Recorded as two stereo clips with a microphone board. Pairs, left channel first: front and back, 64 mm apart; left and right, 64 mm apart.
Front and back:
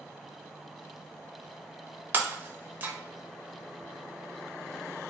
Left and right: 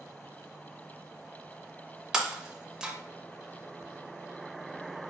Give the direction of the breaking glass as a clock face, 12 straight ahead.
5 o'clock.